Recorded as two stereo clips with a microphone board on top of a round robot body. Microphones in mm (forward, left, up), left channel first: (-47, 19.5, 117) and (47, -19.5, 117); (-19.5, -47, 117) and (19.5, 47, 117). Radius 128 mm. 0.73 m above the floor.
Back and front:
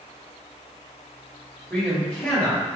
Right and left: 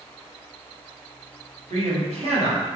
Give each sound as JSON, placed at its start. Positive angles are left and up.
{"t": 1.7, "sound": "a man speaking", "azimuth_deg": 80, "distance_m": 1.6}